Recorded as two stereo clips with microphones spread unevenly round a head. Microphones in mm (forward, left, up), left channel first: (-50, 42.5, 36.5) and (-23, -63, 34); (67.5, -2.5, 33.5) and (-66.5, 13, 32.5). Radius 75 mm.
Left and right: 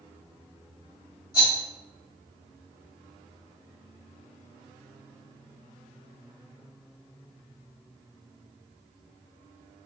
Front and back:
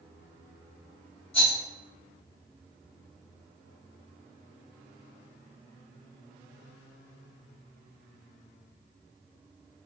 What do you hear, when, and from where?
1.3 s a rattle: 40° left, 1.8 m